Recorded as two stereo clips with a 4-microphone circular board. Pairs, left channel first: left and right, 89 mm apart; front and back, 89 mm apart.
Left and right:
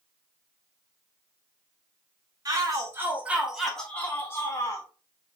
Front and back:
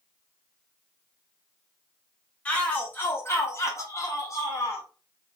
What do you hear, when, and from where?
2.5 s a shout: 65° right, 1.6 m; by 4.8 s 50° left, 1.8 m